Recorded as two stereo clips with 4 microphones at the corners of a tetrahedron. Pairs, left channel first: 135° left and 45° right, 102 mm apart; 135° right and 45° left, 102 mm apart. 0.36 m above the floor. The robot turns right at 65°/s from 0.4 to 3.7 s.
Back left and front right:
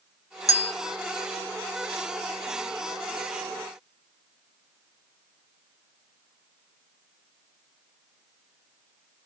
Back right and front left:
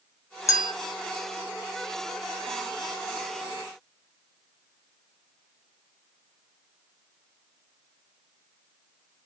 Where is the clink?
175° left, 0.7 m; by 0.7 s 170° right, 0.7 m.